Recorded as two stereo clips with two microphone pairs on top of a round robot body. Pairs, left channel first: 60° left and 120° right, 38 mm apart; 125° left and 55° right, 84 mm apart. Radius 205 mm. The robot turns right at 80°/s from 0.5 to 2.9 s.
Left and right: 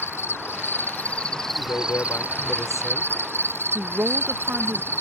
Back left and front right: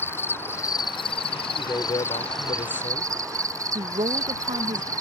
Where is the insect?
60° left; by 5.0 s 110° right.